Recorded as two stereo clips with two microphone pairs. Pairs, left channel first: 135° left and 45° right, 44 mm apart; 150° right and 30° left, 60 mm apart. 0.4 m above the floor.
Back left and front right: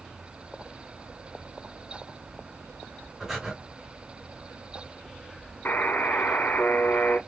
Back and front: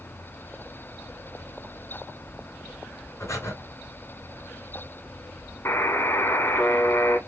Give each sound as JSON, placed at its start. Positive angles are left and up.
{"t": 3.2, "sound": "breathing", "azimuth_deg": -120, "distance_m": 2.0}
{"t": 5.7, "sound": "a buzzer", "azimuth_deg": 180, "distance_m": 0.6}